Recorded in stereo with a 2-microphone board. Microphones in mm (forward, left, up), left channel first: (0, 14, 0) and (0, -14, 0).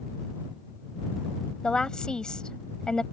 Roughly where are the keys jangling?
I don't hear keys jangling.